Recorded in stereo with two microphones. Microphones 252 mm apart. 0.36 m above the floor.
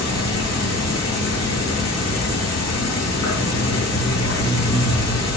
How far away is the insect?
About 6.5 m.